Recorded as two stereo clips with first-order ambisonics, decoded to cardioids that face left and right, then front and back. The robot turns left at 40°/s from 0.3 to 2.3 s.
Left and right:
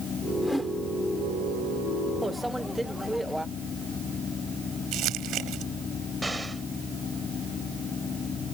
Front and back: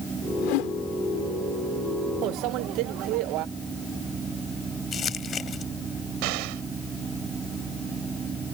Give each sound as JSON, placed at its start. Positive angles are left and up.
{"t": 0.4, "sound": "a whoosh", "azimuth_deg": 5}
{"t": 2.2, "sound": "a microwave", "azimuth_deg": -175}
{"t": 4.9, "sound": "crumpling", "azimuth_deg": -60}
{"t": 6.2, "sound": "an explosion", "azimuth_deg": -175}